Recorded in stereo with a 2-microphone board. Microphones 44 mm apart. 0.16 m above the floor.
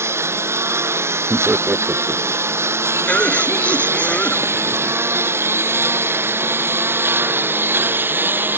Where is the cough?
30° left (ahead or behind).